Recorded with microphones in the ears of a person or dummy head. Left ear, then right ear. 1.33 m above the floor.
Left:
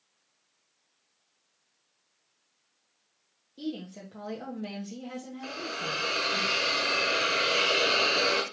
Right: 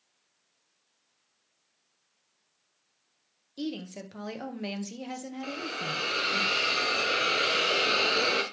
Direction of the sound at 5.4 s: 5° right (ahead or behind).